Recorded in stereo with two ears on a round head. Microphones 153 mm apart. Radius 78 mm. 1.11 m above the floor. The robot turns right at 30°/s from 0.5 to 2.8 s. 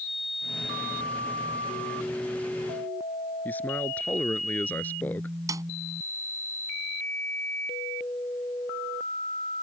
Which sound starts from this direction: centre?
A man speaking, at 3.5 s.